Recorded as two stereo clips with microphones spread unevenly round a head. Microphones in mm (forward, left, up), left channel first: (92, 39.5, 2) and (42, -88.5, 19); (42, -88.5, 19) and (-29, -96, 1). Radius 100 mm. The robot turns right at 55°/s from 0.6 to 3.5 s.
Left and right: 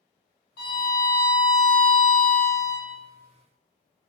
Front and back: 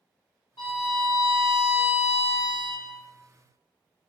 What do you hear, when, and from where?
0.6 s a violin: 80° left, 0.6 m; by 2.9 s 160° right, 0.6 m